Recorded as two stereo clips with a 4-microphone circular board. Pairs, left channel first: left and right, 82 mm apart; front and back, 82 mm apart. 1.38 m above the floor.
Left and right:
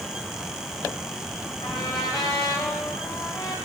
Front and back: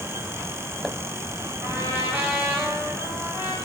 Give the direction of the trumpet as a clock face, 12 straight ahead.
8 o'clock.